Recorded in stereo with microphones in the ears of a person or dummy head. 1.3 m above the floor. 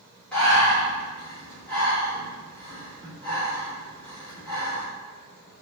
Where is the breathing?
10° left (ahead or behind), 1.3 m.